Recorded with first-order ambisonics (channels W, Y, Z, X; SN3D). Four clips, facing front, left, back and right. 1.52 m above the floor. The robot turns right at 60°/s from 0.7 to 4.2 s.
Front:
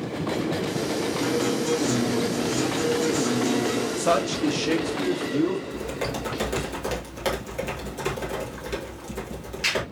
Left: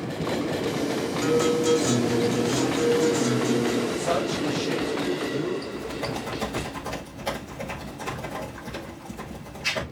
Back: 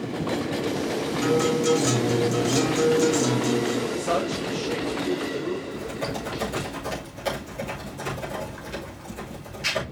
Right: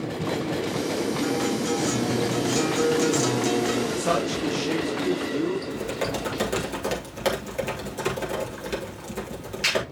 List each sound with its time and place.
1.2 s a guitar: 125° left, 2.5 m; by 3.9 s 75° right, 2.5 m
4.0 s a man speaking: 25° right, 2.5 m; by 5.6 s 10° right, 2.5 m
5.7 s typing on a keyboard: 65° right, 3.5 m